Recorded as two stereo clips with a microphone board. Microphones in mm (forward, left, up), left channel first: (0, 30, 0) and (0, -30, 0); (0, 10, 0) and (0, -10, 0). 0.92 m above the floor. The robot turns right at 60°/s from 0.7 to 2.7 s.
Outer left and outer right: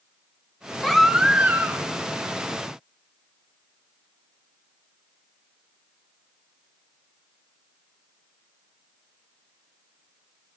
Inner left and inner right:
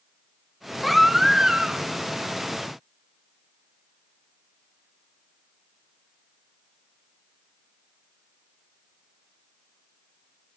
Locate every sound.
0.8 s a baby crying: 170° left, 0.9 m; by 1.9 s 125° right, 0.9 m